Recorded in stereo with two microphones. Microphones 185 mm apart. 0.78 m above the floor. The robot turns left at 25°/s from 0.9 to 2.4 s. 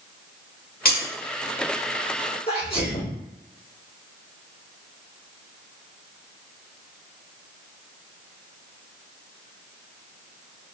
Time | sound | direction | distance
0.8 | breaking glass | 55° left (ahead or behind) | 1.2 m
2.5 | a sneeze | 55° left (ahead or behind) | 1.8 m